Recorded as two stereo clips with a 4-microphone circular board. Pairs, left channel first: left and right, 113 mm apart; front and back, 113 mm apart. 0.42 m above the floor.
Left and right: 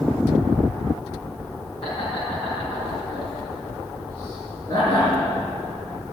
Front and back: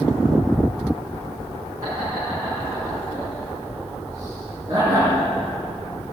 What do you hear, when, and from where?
1.8 s laughter: 120° left, 4.5 m